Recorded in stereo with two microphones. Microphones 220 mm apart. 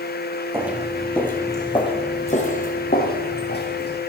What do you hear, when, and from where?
0.5 s footsteps: 10° right (ahead or behind), 1.6 m; by 4.0 s 55° left (ahead or behind), 3 m